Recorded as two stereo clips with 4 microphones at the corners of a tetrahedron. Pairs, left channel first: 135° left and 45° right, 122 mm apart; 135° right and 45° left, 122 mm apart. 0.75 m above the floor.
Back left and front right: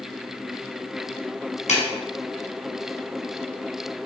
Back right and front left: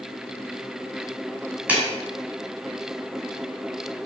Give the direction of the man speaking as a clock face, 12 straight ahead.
I don't hear a man speaking.